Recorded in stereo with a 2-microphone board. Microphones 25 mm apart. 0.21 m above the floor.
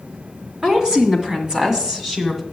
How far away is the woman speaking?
About 2.5 m.